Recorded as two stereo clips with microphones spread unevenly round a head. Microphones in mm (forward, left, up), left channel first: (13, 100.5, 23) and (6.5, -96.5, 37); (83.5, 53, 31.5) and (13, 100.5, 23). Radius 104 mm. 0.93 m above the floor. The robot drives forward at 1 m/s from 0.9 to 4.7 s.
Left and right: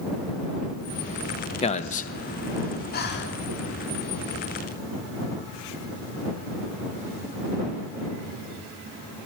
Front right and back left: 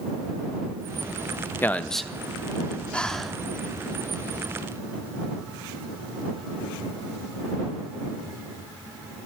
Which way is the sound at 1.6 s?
35° left.